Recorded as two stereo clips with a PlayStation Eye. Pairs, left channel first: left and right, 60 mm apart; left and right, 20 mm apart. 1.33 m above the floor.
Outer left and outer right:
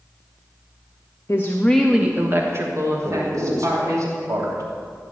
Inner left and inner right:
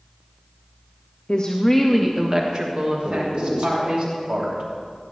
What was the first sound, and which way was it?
A woman speaking, 45° left (ahead or behind).